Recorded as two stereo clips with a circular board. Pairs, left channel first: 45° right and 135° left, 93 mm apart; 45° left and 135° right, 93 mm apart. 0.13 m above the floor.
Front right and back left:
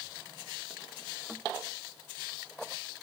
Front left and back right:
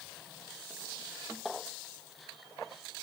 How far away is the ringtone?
I don't hear a ringtone.